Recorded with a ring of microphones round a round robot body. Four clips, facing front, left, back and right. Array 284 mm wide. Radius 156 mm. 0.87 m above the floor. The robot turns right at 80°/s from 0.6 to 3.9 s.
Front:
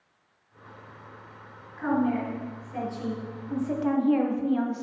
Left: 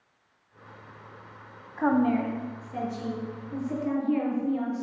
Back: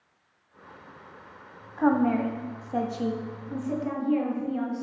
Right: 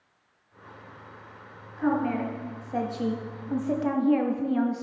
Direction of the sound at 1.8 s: 135° left.